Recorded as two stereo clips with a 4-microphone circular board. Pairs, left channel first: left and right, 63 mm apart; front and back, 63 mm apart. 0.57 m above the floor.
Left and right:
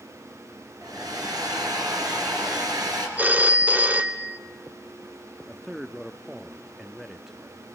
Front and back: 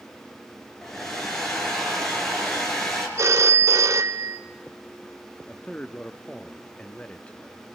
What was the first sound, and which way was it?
A hair dryer, 80° right.